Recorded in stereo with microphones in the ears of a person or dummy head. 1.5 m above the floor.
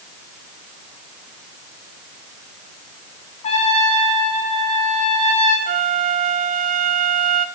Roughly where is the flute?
Right.